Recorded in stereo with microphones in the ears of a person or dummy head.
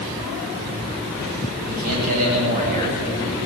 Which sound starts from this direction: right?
A man speaking, at 1.6 s.